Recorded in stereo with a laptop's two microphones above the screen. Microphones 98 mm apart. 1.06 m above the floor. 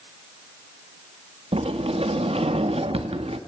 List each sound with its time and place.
1.5 s a sliding door: 85° right, 1.2 m